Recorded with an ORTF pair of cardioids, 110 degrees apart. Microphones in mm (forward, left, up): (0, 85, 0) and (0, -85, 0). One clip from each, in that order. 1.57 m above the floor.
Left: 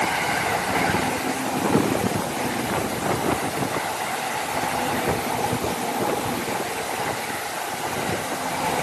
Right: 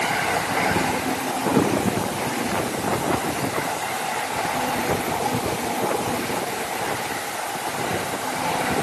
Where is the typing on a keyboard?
I don't hear typing on a keyboard.